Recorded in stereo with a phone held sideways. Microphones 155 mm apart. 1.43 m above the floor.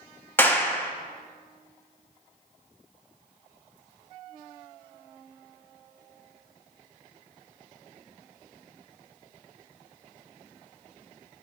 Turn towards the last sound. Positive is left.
turn(degrees=15)  # may be behind; listen again after turning